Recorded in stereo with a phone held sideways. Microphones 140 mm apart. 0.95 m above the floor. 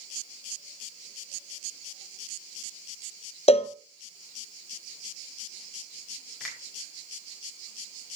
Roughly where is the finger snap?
Centre.